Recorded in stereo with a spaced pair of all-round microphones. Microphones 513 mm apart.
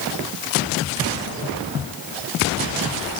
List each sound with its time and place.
Only background noise.